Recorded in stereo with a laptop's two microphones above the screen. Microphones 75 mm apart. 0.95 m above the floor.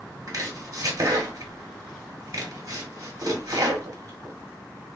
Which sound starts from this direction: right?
Chopping, at 0.3 s.